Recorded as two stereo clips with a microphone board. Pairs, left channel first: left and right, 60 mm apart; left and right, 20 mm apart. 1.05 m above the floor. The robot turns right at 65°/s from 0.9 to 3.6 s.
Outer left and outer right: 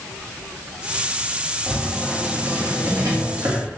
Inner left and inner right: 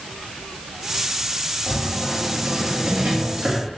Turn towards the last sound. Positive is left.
turn(degrees=-55)